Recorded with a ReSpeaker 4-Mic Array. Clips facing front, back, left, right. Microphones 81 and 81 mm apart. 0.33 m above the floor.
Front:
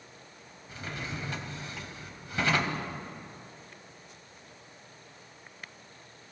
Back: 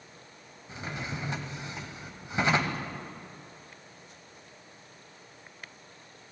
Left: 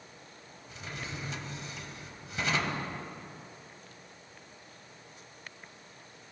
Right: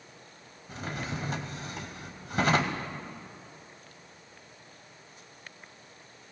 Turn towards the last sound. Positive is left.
turn(degrees=-115)